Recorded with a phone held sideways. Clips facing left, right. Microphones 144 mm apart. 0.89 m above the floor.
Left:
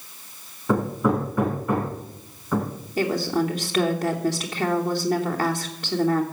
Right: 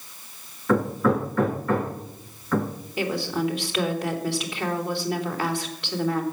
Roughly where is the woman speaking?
Left.